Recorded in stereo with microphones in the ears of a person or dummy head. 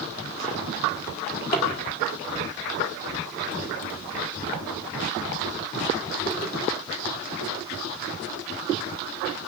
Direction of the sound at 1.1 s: 30° left (ahead or behind).